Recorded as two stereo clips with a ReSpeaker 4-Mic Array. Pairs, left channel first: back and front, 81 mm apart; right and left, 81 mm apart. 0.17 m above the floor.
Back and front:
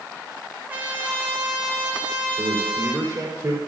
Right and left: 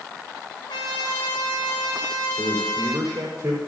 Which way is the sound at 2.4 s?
40° left.